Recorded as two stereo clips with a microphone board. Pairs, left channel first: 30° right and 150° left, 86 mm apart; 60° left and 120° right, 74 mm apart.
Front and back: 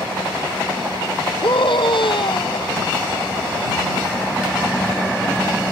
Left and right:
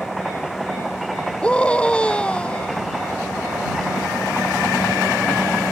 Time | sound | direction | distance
1.4 | a scream | 15° right | ?